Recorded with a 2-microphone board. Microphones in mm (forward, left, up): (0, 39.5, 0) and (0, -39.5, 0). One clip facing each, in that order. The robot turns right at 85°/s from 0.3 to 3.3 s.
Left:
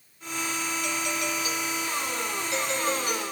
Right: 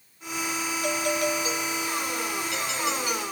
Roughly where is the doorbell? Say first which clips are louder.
Right 8 dB; right.